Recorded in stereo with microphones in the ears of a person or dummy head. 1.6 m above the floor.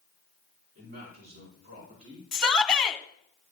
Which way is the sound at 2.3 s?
Centre (ahead or behind).